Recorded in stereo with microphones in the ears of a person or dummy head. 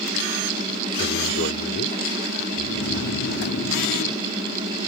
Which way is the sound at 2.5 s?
70° left (ahead or behind).